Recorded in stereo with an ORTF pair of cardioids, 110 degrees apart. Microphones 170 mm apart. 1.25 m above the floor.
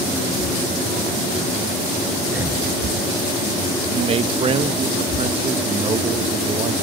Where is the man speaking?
35° right, 1.7 m.